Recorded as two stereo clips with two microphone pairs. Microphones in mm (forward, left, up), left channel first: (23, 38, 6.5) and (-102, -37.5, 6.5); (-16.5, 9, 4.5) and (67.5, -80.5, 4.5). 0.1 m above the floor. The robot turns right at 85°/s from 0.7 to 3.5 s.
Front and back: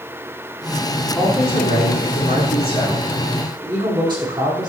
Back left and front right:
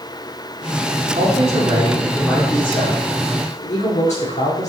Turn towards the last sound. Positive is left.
turn(degrees=155)